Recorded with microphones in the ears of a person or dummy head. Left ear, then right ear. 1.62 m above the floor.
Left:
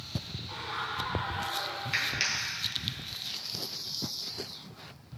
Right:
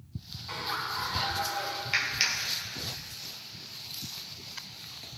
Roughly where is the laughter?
Right.